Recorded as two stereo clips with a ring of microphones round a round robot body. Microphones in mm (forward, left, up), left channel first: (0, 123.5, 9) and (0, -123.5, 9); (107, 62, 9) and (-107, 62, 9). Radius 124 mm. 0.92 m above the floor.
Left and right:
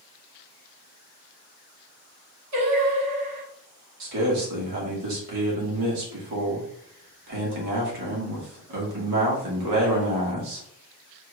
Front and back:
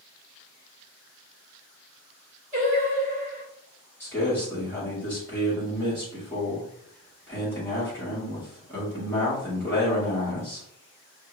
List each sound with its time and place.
2.5 s singing: 115° right, 1.6 m
4.0 s a man speaking: 80° right, 1.8 m